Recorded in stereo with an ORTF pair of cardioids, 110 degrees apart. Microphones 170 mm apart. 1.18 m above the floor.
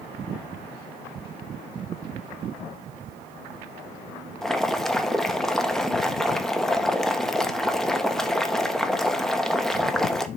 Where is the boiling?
Straight ahead, 0.9 m.